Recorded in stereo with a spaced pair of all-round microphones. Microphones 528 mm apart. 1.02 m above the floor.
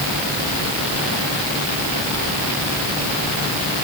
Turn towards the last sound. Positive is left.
No sound to turn to.